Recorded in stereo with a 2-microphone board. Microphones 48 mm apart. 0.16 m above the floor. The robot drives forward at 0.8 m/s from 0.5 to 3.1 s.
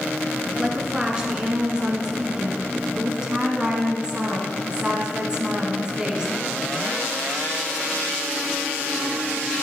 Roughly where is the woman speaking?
Centre.